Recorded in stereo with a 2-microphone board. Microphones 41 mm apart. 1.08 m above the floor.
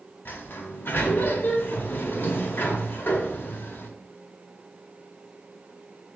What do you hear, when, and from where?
0.2 s a sliding door: 60° left (ahead or behind), 0.8 m